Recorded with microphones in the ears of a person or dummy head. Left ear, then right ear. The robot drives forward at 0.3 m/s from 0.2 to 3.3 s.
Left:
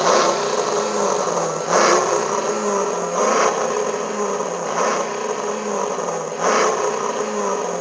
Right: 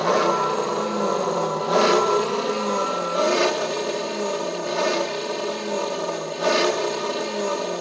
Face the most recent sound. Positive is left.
turn(degrees=45)  # may be behind; listen again after turning